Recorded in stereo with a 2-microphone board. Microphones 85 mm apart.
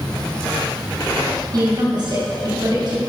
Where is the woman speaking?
55° right (ahead or behind), 2.5 m.